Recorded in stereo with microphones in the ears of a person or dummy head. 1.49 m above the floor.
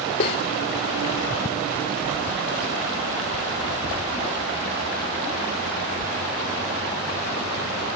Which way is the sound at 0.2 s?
30° left (ahead or behind).